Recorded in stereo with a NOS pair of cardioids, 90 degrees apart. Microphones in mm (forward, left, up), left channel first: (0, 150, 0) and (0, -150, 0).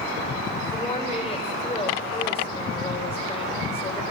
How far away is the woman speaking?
About 4 m.